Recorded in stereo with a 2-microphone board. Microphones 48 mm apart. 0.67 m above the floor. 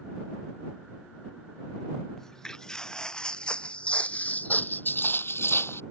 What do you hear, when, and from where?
2.2 s footsteps: 10° left (ahead or behind); by 5.8 s 55° left (ahead or behind)